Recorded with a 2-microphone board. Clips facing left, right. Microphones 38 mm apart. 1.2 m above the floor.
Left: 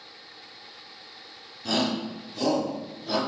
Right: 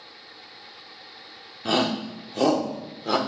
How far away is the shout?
About 1.0 m.